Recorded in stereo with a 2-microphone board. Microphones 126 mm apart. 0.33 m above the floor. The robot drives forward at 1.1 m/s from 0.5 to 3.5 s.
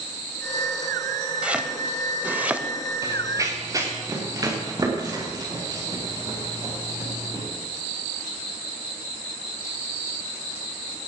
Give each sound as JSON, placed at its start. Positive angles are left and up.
{"t": 1.4, "sound": "chopping", "side_deg": -10, "distance_m": 1.0}
{"t": 3.0, "sound": "running footsteps", "side_deg": -30, "distance_m": 2.0}